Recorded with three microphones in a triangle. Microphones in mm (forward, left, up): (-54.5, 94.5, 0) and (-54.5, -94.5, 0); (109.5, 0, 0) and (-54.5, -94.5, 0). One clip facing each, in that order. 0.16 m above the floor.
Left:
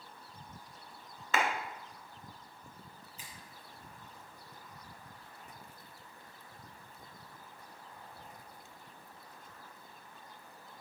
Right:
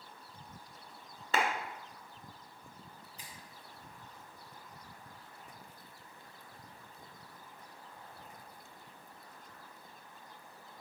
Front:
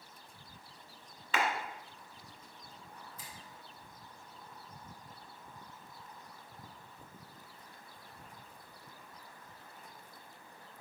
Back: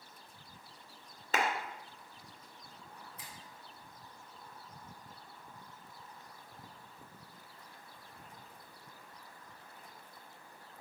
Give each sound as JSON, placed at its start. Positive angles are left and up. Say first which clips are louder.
{"t": 1.3, "sound": "a clap", "louder": "even, even", "azimuth_deg": -130, "distance_m": 1.5}
{"t": 3.2, "sound": "a finger snap", "louder": "even, even", "azimuth_deg": -140, "distance_m": 2.5}